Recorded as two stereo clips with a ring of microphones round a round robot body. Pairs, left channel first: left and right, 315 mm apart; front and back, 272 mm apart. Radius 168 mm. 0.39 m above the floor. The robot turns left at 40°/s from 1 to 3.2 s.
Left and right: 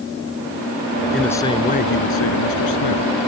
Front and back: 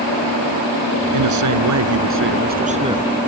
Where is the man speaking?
Straight behind; by 3.3 s 95° left.